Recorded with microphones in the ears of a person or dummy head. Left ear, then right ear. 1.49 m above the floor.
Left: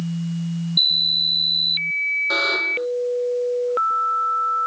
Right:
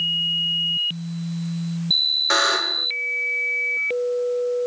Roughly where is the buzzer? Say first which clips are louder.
Right 1 dB; right.